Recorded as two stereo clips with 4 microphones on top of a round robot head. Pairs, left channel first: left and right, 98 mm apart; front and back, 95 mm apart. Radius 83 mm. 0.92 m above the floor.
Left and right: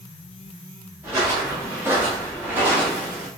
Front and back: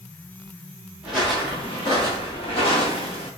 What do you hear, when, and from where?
1.0 s footsteps: 105° right, 0.9 m; by 3.3 s 20° right, 1.5 m